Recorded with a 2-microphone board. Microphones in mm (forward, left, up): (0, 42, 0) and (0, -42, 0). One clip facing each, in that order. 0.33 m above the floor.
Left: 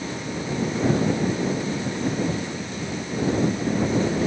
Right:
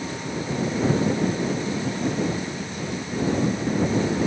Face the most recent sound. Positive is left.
No sound to turn to.